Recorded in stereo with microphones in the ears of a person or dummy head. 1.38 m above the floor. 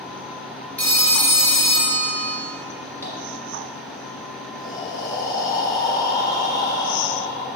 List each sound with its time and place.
0.8 s a phone ringing: 5° left (ahead or behind), 0.5 m
3.0 s tapping: 15° left (ahead or behind), 1.8 m
4.5 s breathing: 25° left (ahead or behind), 0.7 m